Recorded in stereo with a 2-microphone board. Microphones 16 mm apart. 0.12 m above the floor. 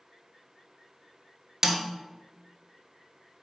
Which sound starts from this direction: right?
A snare drum, at 1.6 s.